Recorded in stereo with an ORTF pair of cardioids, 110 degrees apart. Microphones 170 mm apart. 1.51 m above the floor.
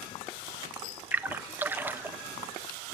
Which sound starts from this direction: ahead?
A splash, at 1.1 s.